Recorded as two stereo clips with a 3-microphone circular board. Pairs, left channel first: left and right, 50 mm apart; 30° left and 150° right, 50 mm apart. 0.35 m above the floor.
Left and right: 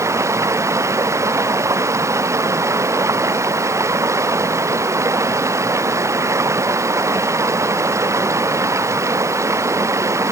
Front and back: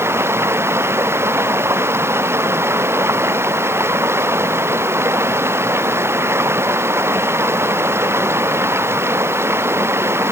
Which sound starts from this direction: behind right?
Running water, at 0.0 s.